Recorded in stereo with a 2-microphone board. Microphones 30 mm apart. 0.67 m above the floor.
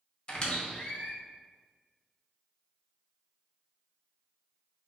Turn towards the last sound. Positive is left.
turn(degrees=35)  # may be behind; listen again after turning